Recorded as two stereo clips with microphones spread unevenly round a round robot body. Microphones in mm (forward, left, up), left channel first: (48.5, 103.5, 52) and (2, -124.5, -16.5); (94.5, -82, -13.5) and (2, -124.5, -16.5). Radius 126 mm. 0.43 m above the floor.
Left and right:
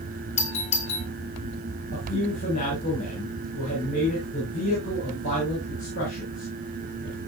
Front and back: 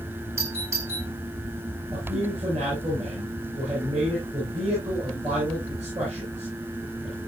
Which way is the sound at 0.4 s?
150° left.